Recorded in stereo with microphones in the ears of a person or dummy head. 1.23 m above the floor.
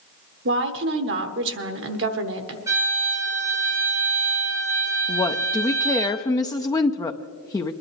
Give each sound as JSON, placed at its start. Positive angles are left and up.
{"t": 0.5, "sound": "a woman speaking", "side_deg": -60, "distance_m": 1.0}
{"t": 2.7, "sound": "a violin", "side_deg": -20, "distance_m": 3.0}
{"t": 5.1, "sound": "a woman speaking", "side_deg": 20, "distance_m": 0.6}